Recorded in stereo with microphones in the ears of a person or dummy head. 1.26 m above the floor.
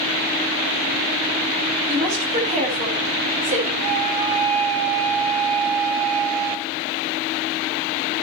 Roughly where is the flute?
Right.